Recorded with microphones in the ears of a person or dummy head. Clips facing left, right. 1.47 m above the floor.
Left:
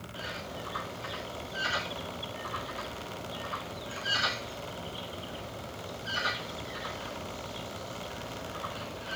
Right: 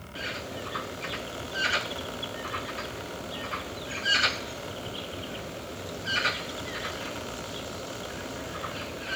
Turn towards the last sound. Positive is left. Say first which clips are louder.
# right 4 dB
turn(degrees=-25)  # may be behind; listen again after turning